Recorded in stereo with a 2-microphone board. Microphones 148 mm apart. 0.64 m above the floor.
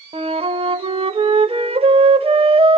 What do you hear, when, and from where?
0.1 s a flute: 40° right (ahead or behind), 0.6 m